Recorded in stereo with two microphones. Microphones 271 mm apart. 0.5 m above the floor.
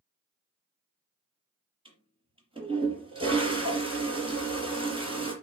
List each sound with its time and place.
1.9 s a toilet flushing: 20° right (ahead or behind), 5 m